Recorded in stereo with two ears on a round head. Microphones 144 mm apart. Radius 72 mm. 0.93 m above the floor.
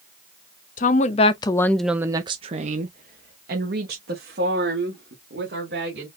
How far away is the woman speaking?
About 0.7 m.